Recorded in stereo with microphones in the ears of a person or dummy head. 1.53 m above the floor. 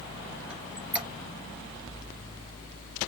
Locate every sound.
0.5 s a squeak: 10° right (ahead or behind), 2.5 m